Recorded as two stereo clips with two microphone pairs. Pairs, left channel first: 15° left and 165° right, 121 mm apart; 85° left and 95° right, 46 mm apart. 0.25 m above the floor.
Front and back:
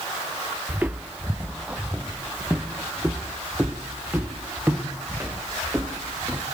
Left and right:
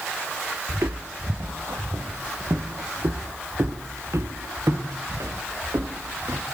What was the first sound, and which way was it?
Footsteps, 85° right.